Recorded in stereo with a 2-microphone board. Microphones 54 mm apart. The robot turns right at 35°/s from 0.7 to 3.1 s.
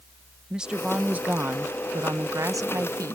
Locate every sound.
0.5 s a woman speaking: 165° right; by 3.1 s 80° right